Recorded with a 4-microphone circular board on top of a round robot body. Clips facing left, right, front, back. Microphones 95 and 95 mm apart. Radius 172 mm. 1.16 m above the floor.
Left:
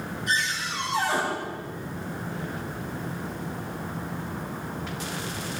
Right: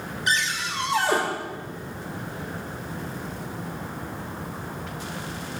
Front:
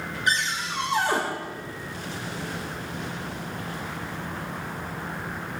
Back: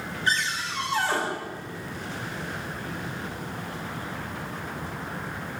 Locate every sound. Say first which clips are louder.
0.3 s a cupboard door: right 3 dB, front 1 dB; 75° right, 2.5 m